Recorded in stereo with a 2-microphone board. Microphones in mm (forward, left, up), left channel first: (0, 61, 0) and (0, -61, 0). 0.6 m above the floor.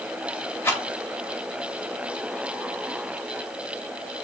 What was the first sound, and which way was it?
A rattle, 20° left (ahead or behind).